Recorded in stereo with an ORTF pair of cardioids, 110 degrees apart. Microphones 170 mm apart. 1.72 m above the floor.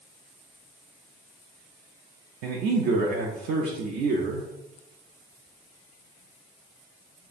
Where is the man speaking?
70° right, 0.6 m.